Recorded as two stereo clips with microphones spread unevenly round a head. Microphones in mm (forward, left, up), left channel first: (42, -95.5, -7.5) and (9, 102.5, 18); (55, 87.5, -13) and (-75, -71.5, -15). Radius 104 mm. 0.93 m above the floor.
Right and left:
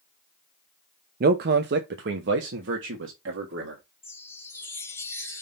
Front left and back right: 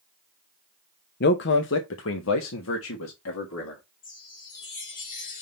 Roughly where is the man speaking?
Ahead left.